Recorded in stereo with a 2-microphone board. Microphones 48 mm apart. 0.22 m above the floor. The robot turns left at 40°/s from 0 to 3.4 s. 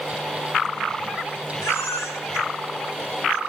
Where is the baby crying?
70° left (ahead or behind), 6.5 m; by 3.4 s 40° left (ahead or behind), 6.5 m.